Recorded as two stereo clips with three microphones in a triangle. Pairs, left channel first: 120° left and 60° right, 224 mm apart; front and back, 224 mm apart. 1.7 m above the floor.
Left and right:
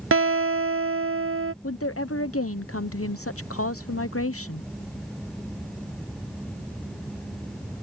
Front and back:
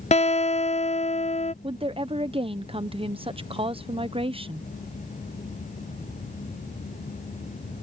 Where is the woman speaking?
115° left.